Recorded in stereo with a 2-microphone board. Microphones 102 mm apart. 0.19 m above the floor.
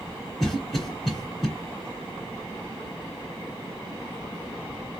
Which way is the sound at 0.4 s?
5° left (ahead or behind).